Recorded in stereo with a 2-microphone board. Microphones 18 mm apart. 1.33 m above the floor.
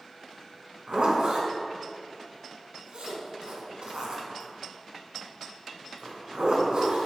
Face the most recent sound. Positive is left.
turn(degrees=-75)  # may be behind; listen again after turning